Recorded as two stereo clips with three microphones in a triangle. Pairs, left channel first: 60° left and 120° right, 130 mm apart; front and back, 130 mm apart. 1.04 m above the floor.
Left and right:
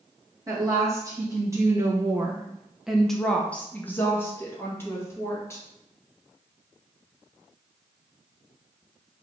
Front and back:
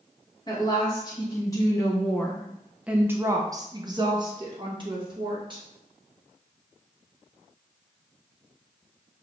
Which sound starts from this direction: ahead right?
A woman speaking, at 0.5 s.